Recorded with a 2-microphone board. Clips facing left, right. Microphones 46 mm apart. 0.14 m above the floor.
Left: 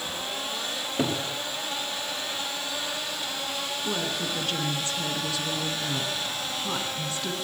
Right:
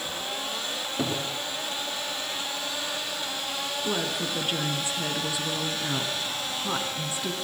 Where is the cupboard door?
25° left (ahead or behind), 3 m.